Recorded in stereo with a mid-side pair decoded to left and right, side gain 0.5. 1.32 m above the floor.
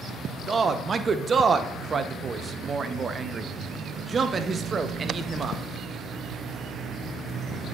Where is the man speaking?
35° right, 0.8 m.